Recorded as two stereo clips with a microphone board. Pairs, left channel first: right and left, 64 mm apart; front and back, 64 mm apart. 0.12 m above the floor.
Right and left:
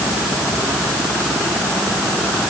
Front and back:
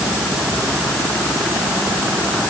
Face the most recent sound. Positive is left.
No sound to turn to.